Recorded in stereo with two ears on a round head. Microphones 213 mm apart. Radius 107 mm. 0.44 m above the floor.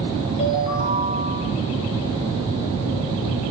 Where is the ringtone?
25° left (ahead or behind), 4.5 m.